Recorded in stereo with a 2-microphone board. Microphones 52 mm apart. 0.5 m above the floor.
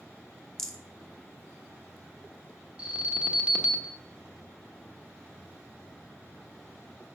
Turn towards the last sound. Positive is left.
turn(degrees=-20)  # may be behind; listen again after turning